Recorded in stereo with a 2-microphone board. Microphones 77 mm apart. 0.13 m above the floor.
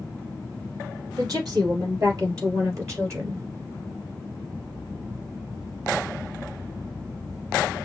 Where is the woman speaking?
50° right (ahead or behind), 3.5 m; by 3.5 s 35° right (ahead or behind), 2 m.